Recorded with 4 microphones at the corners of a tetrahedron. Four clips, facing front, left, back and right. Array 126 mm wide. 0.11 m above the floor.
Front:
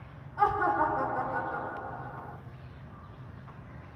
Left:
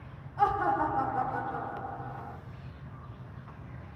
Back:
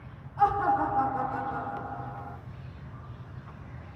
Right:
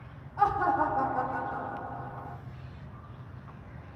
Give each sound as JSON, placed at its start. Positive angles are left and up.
{"t": 0.4, "sound": "laughter", "azimuth_deg": -100, "distance_m": 2.0}